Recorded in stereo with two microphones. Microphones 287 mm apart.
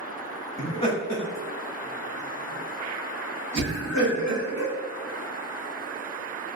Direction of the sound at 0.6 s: 10° left (ahead or behind).